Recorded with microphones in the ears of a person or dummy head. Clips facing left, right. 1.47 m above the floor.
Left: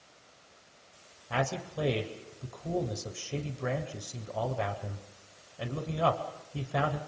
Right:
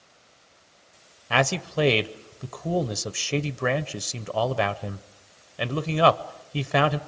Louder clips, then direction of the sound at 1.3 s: Right 8 dB; 85° right.